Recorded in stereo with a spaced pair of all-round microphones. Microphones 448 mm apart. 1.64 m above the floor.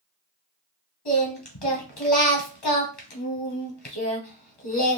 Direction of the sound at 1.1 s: 60° left (ahead or behind).